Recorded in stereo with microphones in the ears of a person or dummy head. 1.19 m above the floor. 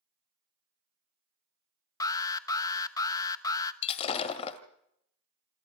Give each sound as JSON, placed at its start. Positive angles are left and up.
{"t": 2.0, "sound": "an alarm", "side_deg": 25, "distance_m": 1.0}
{"t": 3.8, "sound": "breaking glass", "side_deg": 35, "distance_m": 1.7}